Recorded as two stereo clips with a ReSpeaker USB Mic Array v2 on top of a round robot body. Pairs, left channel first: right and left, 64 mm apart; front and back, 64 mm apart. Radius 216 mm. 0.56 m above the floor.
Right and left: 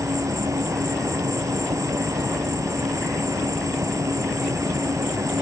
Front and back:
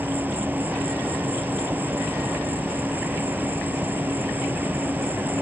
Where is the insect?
120° left.